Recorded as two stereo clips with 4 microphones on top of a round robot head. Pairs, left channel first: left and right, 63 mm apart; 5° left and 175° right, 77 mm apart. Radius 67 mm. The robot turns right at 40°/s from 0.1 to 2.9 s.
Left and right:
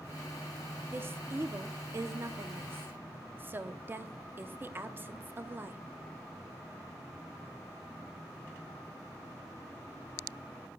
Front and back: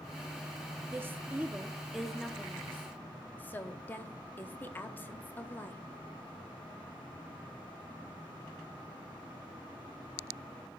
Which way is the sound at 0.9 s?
130° right.